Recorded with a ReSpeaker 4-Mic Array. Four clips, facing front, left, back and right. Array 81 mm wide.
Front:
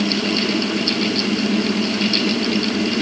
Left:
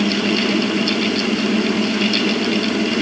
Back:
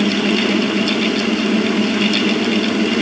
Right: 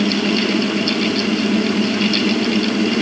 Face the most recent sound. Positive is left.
No sound to turn to.